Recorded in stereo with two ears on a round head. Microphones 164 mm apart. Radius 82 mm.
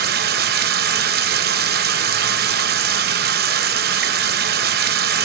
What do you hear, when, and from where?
0.0 s running water: 60° right (ahead or behind), 0.9 m